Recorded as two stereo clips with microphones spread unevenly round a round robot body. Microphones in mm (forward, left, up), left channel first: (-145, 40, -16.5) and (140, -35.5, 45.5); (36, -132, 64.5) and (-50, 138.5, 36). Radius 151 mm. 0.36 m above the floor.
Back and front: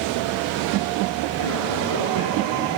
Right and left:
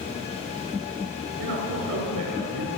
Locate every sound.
1.4 s a man speaking: 155° left, 6 m